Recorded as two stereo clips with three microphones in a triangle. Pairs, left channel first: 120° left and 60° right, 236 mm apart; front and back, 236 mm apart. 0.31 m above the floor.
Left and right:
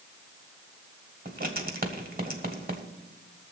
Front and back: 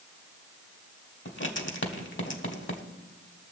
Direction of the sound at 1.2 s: 20° right.